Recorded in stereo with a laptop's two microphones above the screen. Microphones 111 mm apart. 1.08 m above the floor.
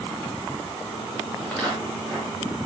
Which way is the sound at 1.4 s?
10° left (ahead or behind).